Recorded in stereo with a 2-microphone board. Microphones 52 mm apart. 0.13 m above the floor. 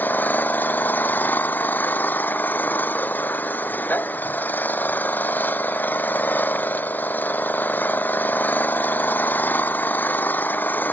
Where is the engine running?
40° left (ahead or behind).